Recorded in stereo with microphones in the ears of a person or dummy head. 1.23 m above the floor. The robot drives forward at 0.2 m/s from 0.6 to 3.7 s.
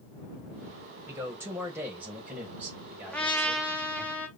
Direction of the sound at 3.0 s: 10° left (ahead or behind).